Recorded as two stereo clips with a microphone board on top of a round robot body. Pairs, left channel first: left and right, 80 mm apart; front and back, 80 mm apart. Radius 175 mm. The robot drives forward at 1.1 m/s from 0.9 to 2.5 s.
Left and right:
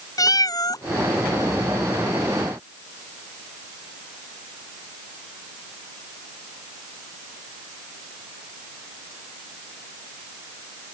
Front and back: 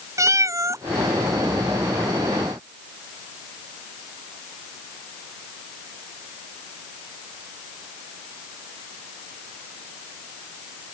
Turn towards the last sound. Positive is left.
turn(degrees=165)